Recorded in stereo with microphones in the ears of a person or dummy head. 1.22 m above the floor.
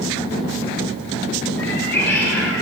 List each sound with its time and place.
1.6 s a cat meowing: 15° left (ahead or behind), 7 m